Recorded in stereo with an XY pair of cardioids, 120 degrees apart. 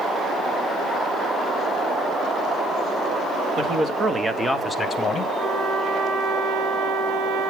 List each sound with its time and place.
3.6 s a man speaking: 45° right, 1.8 m; by 5.3 s 40° left, 1.5 m
5.4 s a trumpet: 60° right, 3.5 m